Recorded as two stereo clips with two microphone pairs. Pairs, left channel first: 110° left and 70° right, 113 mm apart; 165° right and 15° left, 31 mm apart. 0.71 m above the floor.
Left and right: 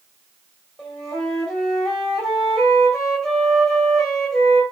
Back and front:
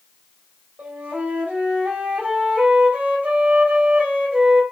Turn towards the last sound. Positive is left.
turn(degrees=25)